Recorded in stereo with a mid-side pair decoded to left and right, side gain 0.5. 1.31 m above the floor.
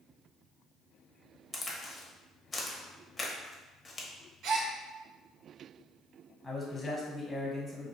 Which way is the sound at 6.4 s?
10° left.